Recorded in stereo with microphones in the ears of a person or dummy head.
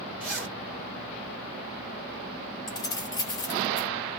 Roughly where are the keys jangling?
Centre.